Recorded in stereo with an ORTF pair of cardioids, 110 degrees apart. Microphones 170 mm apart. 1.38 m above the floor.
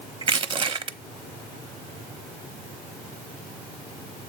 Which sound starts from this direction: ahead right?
Crushing, at 0.2 s.